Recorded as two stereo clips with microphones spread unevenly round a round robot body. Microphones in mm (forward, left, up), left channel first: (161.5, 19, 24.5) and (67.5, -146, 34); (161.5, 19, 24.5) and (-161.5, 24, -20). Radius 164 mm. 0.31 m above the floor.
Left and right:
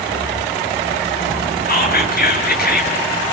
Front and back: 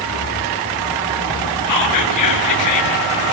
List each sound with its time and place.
1.7 s whispering: 30° left, 6.5 m